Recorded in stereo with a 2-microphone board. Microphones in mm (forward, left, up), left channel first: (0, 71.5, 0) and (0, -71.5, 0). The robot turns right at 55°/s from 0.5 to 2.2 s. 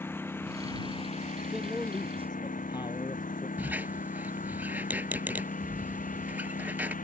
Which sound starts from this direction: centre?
A squeak, at 3.6 s.